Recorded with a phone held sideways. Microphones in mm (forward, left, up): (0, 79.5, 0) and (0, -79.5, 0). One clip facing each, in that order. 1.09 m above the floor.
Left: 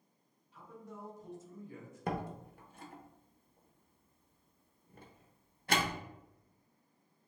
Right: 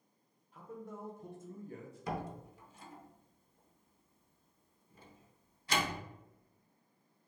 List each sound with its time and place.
0.5 s a man speaking: 50° right (ahead or behind), 1.1 m; by 2.1 s 30° right (ahead or behind), 0.6 m
2.1 s a door slam: 60° left (ahead or behind), 0.5 m